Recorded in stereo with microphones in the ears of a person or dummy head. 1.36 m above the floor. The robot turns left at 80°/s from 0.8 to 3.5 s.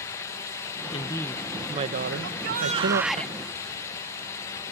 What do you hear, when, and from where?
0.9 s a woman speaking: 35° left; by 3.2 s 150° right
2.2 s a shout: 105° right; by 3.3 s 165° left